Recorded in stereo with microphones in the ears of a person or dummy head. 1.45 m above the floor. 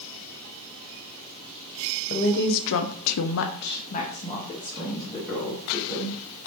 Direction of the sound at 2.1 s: 45° left (ahead or behind).